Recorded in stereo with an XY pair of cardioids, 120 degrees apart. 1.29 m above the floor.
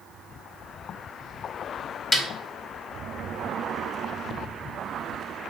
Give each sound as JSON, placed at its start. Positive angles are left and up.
{"t": 2.1, "sound": "a snare drum", "azimuth_deg": 20, "distance_m": 1.1}